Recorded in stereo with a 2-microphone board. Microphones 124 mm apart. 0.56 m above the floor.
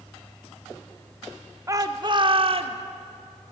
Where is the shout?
25° right (ahead or behind), 1.4 m; by 2.8 s 55° right (ahead or behind), 2 m.